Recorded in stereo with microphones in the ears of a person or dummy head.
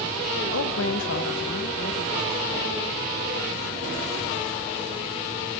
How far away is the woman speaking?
About 1.6 m.